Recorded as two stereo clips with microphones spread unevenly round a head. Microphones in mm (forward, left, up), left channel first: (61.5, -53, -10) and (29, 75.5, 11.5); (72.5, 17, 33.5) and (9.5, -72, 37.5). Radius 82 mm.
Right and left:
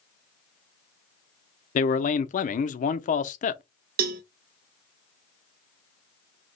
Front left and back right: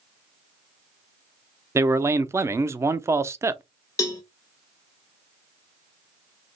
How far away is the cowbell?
About 0.5 m.